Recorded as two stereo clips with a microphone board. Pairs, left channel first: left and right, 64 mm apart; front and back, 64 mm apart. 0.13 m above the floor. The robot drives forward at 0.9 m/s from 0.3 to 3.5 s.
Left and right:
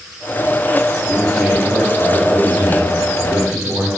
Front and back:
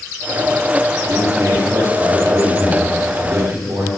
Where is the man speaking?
175° right, 3.5 m.